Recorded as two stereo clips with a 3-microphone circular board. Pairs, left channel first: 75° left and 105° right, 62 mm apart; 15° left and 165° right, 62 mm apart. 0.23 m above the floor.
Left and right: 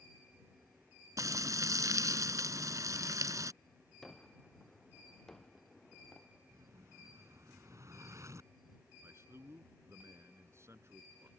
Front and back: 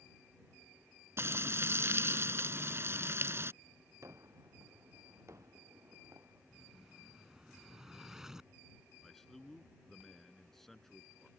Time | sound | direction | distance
1.2 | frying | 120° right | ?
4.0 | a gunshot | 155° left | ?
6.5 | an explosion | 85° right | ?
9.0 | a man speaking | 70° right | ?